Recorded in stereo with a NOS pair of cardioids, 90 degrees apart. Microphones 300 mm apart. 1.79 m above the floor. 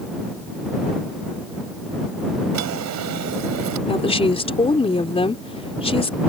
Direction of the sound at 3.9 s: 20° left.